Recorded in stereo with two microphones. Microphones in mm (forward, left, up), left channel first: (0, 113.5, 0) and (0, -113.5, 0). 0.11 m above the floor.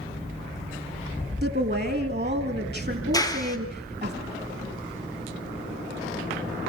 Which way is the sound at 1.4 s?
45° right (ahead or behind).